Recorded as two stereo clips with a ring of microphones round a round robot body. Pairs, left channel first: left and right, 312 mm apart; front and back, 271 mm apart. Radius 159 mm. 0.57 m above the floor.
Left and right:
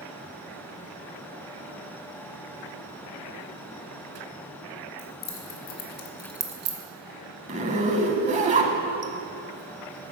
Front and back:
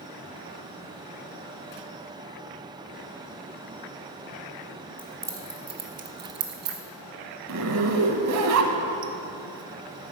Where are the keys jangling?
95° left, 1.9 m; by 6.8 s 130° right, 1.0 m.